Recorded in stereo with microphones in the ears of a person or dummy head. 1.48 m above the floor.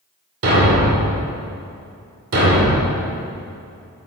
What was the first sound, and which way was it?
A thud, 70° right (ahead or behind).